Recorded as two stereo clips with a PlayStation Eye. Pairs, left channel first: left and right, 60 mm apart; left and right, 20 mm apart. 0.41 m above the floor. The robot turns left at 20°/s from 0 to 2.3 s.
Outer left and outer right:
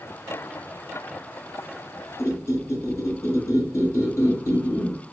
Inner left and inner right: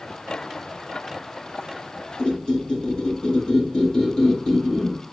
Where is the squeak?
50° left (ahead or behind), 1.2 m; by 5.0 s 45° left (ahead or behind), 1.2 m.